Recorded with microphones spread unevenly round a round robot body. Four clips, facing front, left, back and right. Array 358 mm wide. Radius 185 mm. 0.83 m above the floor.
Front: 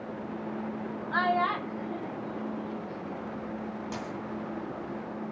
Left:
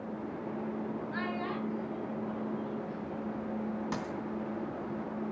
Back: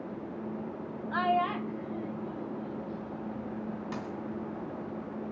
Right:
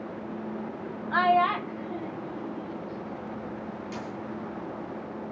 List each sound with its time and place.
1.1 s a child speaking: 75° right, 1.1 m; by 3.5 s 30° right, 2 m
3.9 s a dropped coin: 80° left, 2.5 m